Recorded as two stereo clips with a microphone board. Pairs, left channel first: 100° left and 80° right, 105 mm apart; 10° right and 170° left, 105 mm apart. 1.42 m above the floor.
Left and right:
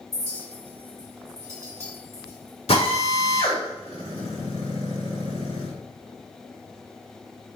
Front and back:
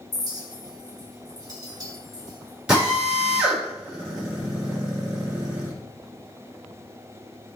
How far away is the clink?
About 1.6 m.